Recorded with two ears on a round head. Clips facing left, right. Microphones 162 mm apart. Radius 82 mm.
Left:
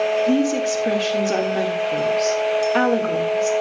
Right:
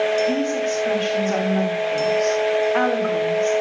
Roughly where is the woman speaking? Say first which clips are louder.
Left 3 dB; left.